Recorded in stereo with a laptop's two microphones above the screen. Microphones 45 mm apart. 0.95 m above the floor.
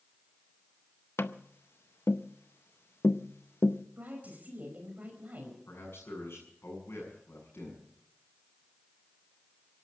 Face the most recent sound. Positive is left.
turn(degrees=65)  # may be behind; listen again after turning